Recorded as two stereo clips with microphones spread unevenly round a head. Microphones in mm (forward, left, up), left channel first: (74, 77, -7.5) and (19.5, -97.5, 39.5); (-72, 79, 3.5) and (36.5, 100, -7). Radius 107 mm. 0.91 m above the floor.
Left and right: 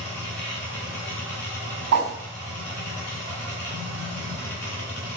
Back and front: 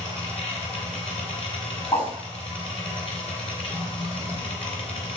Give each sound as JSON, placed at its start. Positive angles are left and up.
{"t": 0.0, "sound": "a machine running", "azimuth_deg": 155, "distance_m": 3.5}
{"t": 1.9, "sound": "a whoosh", "azimuth_deg": -100, "distance_m": 3.0}